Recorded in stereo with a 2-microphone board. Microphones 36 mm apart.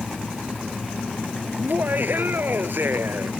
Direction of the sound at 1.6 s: 55° right (ahead or behind).